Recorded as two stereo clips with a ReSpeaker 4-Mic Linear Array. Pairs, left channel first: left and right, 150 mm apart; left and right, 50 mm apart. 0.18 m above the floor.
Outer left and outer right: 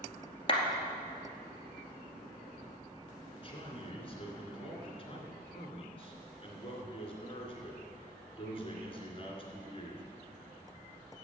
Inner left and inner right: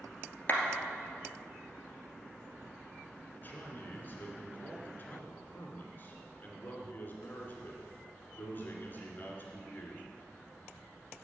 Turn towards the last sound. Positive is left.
turn(degrees=35)  # may be behind; listen again after turning